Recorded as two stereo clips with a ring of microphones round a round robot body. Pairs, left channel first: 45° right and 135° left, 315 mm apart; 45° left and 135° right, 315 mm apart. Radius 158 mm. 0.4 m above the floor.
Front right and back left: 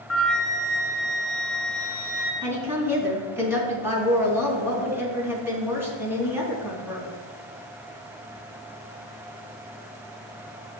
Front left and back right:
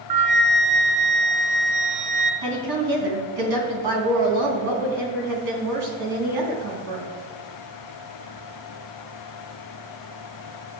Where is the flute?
135° right, 0.9 m.